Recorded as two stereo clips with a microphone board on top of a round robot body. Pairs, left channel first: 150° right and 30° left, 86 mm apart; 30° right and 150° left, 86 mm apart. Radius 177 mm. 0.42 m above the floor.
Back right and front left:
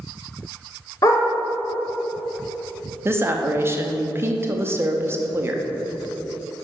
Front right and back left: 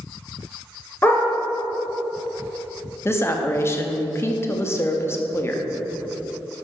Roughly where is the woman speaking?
Ahead.